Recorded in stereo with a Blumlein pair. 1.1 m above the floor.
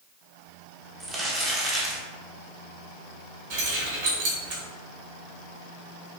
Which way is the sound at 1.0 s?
15° right.